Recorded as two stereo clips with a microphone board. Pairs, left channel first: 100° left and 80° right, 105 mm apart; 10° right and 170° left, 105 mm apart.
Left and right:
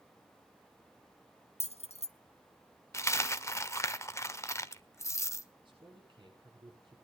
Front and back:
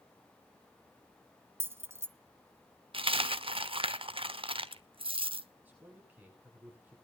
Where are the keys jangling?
105° left, 0.8 m.